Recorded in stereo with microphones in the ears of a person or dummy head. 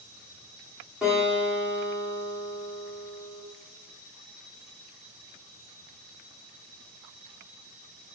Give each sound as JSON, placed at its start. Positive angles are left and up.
{"t": 1.0, "sound": "a guitar", "side_deg": 0, "distance_m": 1.0}